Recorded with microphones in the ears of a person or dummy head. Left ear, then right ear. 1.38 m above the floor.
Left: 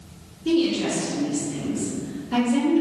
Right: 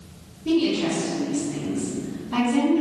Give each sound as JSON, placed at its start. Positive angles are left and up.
{"t": 0.5, "sound": "a woman speaking", "side_deg": 35, "distance_m": 1.6}